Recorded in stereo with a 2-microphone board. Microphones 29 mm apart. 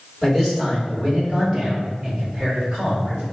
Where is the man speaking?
15° right (ahead or behind), 1.1 m; by 3.2 s 55° right (ahead or behind), 2.5 m.